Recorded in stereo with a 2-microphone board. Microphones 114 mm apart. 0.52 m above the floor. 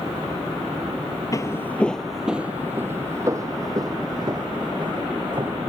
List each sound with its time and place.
1.3 s footsteps: 30° left (ahead or behind); by 5.6 s 45° right (ahead or behind)